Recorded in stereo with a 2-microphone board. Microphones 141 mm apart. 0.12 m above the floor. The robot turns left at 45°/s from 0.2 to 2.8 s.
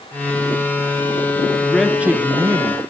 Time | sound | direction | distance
1.6 | a man speaking | 5° left | 1.4 m